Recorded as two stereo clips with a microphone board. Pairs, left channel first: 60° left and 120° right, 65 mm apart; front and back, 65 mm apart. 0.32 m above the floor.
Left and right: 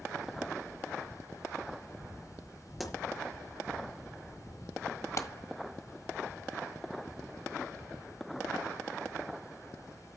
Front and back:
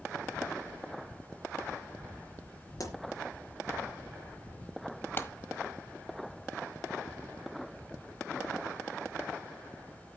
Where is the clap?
45° left, 1.3 m.